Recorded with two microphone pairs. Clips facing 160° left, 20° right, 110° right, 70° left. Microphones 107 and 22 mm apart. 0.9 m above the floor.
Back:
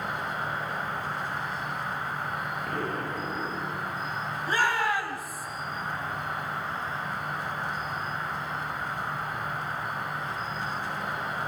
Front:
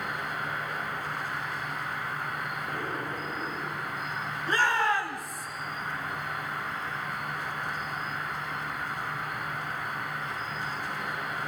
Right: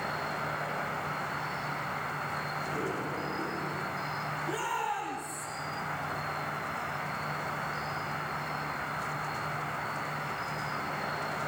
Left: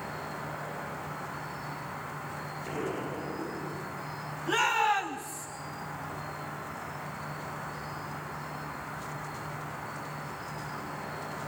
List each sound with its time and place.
0.0 s an insect: 140° right, 3 m
2.7 s an explosion: 145° left, 6 m
4.5 s a shout: 75° left, 6 m